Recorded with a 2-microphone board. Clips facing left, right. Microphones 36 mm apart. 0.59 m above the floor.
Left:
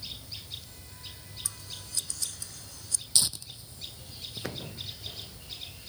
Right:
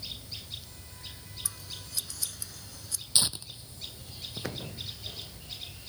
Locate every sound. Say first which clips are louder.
1.4 s scissors: even; 5° right (ahead or behind)
3.1 s tearing paper: right 1 dB; 25° right (ahead or behind)